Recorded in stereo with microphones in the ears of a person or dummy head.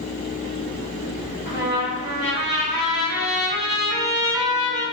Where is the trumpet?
55° right (ahead or behind), 1.6 m.